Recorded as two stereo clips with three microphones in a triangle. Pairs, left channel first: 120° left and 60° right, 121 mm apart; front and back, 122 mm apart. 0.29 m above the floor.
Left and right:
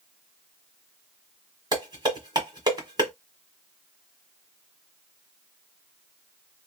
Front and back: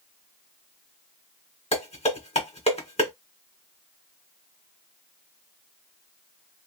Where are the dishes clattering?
10° right, 1.4 m.